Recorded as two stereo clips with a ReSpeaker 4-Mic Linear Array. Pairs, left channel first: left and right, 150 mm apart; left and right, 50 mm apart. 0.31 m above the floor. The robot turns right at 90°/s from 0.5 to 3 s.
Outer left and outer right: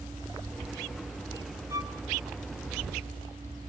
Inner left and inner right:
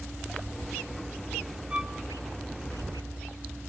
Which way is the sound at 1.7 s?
20° right (ahead or behind).